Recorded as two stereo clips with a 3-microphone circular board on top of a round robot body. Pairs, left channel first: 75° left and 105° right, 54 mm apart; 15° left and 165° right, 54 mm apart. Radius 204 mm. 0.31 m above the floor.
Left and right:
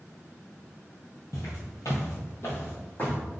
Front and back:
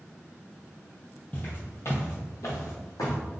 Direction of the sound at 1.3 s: 80° left.